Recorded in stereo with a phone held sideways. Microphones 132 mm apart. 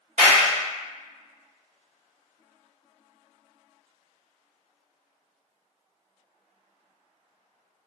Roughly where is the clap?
Right.